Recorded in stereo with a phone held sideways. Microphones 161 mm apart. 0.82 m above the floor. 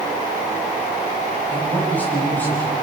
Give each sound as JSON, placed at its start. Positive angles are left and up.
{"t": 1.5, "sound": "a man speaking", "side_deg": 10, "distance_m": 5.5}